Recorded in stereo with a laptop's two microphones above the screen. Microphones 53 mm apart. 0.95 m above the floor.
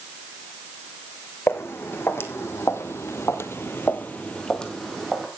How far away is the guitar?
I don't hear a guitar.